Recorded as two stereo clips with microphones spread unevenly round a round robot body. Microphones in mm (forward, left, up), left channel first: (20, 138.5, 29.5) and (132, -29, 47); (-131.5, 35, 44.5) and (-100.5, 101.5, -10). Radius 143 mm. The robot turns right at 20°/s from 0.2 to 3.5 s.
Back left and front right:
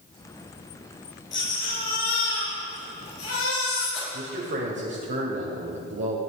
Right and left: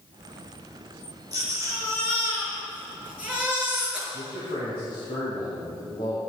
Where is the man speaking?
45° right, 1.9 m.